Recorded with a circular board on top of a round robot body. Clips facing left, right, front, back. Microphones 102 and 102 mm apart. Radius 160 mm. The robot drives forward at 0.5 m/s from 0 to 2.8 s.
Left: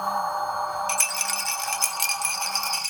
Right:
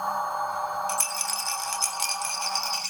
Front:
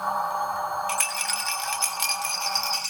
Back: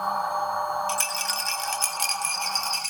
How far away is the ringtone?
I don't hear a ringtone.